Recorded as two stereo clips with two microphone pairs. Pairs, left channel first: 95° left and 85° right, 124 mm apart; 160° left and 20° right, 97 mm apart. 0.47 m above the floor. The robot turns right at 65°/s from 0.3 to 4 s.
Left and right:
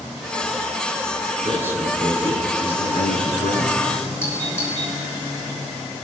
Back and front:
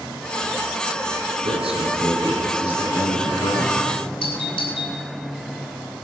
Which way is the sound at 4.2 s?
165° left.